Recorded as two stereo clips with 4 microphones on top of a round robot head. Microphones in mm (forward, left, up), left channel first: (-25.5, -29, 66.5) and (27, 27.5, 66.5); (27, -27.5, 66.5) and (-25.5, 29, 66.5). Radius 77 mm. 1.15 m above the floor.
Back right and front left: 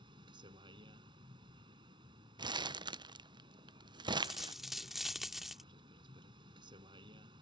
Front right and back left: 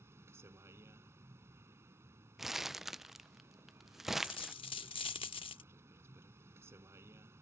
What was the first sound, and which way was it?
A vehicle, 75° left.